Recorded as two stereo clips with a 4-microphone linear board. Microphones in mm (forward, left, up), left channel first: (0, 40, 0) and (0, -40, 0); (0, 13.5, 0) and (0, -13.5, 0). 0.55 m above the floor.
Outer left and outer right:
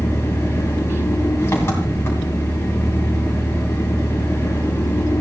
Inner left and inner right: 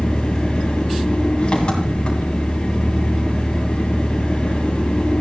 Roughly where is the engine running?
Left.